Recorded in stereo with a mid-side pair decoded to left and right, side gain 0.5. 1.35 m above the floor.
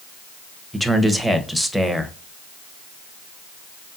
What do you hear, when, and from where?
0.7 s a man speaking: straight ahead, 1.0 m